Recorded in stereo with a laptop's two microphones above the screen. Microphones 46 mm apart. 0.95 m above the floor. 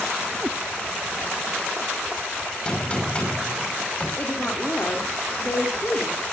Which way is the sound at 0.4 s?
30° right (ahead or behind).